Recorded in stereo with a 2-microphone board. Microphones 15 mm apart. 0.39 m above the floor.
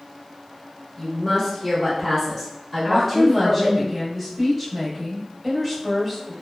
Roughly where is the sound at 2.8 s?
Centre.